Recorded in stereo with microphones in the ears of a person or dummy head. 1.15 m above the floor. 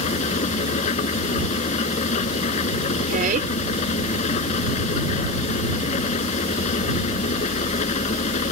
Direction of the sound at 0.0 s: 35° left (ahead or behind).